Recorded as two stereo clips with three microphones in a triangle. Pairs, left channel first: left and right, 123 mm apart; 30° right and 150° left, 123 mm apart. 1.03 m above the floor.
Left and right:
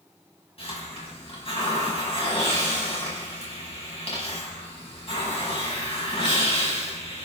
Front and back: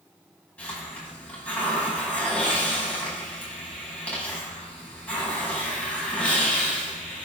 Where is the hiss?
50° left, 5.5 m.